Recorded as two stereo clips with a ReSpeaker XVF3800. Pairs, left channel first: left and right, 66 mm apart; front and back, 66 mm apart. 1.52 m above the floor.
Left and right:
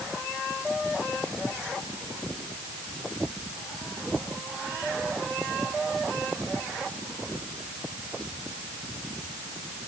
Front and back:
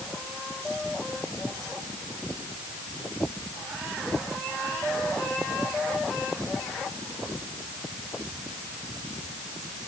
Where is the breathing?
No breathing in this recording.